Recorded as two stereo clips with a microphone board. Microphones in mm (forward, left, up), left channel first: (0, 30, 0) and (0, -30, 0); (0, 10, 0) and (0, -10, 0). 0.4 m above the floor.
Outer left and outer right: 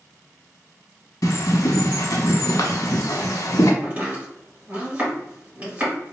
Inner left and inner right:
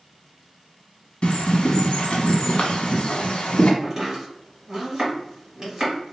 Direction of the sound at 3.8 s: 20° right (ahead or behind).